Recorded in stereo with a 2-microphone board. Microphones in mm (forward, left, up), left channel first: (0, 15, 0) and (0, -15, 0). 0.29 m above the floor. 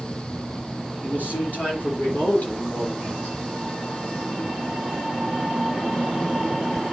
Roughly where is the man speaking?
Left.